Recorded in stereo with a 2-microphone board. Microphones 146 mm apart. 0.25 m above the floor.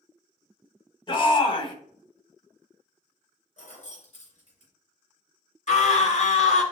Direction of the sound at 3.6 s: 55° left (ahead or behind).